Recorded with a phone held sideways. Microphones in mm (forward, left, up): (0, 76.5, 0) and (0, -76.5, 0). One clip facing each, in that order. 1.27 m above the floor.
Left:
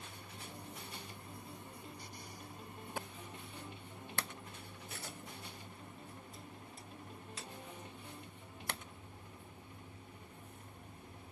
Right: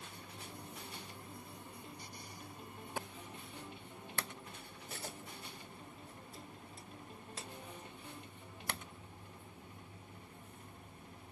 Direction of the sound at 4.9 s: 45° right (ahead or behind).